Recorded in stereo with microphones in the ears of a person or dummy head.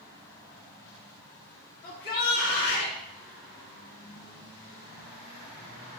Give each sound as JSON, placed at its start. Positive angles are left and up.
{"t": 1.8, "sound": "a shout", "side_deg": 55, "distance_m": 2.5}